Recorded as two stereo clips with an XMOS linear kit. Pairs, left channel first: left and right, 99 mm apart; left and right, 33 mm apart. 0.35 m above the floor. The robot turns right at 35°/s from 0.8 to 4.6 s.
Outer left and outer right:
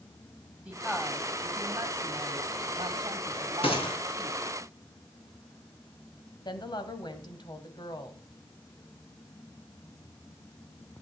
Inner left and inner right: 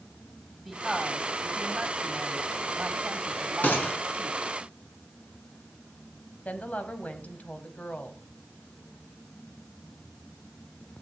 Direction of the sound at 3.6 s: 70° left (ahead or behind).